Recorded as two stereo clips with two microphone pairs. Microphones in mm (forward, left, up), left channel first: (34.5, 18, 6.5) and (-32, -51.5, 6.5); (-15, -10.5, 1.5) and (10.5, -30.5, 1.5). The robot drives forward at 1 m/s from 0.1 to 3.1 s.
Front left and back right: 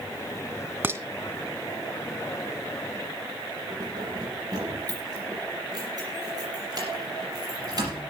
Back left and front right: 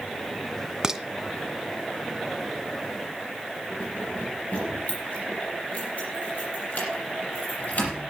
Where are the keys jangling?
Straight behind, 6.5 m.